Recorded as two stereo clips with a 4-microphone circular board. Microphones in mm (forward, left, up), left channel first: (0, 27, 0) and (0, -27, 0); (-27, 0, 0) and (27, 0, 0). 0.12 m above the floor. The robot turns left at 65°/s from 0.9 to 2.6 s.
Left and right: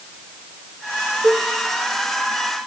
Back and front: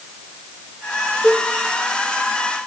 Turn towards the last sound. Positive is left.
turn(degrees=175)